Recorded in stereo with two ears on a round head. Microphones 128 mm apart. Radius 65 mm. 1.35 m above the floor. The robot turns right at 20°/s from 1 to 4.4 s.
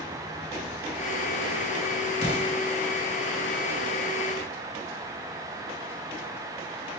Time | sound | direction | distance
2.2 | an explosion | 45° left (ahead or behind) | 1.2 m